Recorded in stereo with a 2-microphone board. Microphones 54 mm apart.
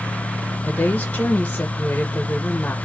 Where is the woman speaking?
30° left (ahead or behind), 1.0 m.